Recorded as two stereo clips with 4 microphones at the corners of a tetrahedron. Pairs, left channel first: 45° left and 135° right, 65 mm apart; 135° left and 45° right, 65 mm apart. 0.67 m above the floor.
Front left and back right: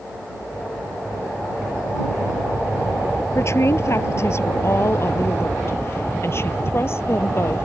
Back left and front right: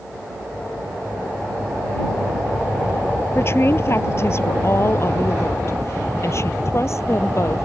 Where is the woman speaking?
90° left; by 7.7 s 95° left.